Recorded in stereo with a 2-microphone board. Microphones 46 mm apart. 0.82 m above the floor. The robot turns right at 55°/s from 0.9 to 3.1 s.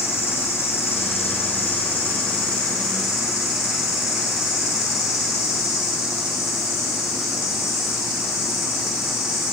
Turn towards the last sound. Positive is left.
turn(degrees=175)